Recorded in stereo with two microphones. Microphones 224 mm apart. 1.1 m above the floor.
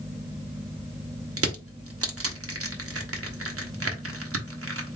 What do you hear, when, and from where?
1.4 s crushing: 70° right (ahead or behind), 0.9 m